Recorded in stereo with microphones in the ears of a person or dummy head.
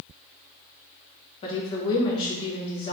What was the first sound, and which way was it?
A woman speaking, 25° left (ahead or behind).